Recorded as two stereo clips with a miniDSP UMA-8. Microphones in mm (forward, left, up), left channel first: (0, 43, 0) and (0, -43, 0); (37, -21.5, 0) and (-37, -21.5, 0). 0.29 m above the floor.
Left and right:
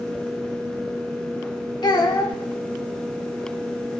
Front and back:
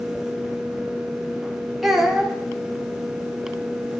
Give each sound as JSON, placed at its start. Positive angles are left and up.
{"t": 1.8, "sound": "a child speaking", "azimuth_deg": 95, "distance_m": 1.5}